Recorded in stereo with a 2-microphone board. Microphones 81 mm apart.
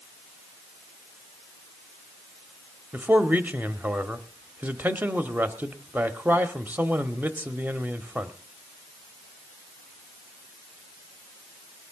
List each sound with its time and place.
2.9 s a man speaking: 20° right (ahead or behind), 1.0 m